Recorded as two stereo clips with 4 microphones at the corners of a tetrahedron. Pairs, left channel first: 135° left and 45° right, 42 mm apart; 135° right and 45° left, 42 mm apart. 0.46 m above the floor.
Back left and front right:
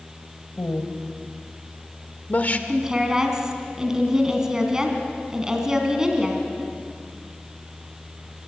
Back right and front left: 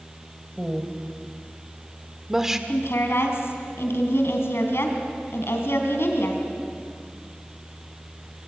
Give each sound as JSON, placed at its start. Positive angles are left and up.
{"t": 0.6, "sound": "a woman speaking", "azimuth_deg": 130, "distance_m": 2.5}
{"t": 2.7, "sound": "a woman speaking", "azimuth_deg": -120, "distance_m": 3.5}